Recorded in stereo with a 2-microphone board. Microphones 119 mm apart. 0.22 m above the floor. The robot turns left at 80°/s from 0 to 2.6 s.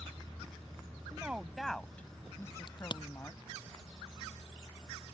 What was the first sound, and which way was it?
A woman speaking, 15° right (ahead or behind).